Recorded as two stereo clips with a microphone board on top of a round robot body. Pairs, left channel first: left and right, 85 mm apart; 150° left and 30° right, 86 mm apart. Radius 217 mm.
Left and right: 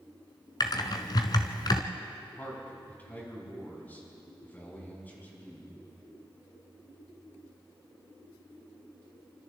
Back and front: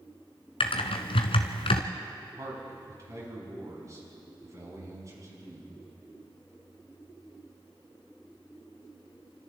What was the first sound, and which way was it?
Typing on a keyboard, 135° left.